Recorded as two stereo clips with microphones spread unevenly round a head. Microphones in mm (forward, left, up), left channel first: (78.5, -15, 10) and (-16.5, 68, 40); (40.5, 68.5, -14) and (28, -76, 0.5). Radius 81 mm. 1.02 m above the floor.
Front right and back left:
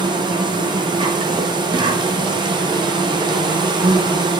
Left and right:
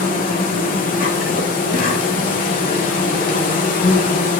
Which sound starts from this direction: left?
An insect, at 0.0 s.